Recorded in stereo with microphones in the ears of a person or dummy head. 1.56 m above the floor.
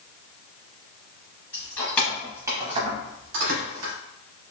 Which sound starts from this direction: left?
Keys jangling, at 1.5 s.